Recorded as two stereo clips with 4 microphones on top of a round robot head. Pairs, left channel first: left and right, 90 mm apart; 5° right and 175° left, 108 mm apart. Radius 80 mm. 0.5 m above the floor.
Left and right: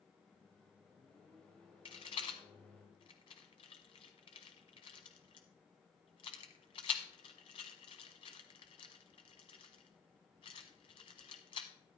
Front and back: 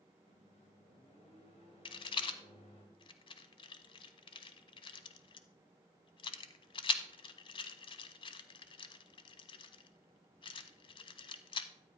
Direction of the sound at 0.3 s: 10° left.